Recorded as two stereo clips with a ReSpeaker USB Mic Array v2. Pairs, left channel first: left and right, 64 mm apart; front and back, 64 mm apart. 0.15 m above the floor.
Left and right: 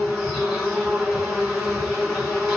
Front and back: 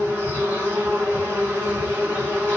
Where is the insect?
170° right, 2.5 m.